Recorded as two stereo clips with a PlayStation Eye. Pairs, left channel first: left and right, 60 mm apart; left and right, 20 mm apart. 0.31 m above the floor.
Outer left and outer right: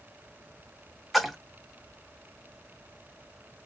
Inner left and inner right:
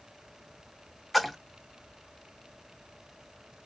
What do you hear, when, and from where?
1.1 s a splash: centre (ahead or behind), 0.6 m